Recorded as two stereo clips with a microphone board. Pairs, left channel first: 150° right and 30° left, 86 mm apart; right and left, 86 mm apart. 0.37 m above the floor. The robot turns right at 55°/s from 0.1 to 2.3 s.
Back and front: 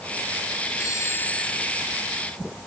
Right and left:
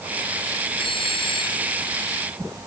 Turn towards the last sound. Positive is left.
turn(degrees=-25)